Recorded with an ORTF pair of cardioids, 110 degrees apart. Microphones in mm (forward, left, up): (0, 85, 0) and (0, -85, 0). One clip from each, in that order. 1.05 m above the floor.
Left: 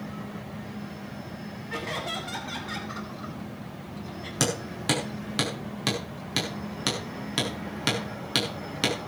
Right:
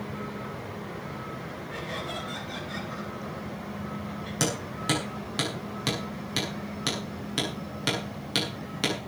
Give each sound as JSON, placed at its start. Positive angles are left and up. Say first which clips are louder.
{"t": 1.7, "sound": "laughter", "louder": "left 4 dB", "azimuth_deg": 55, "distance_m": 8.0}
{"t": 4.4, "sound": "hammering", "louder": "left 2 dB", "azimuth_deg": 20, "distance_m": 7.0}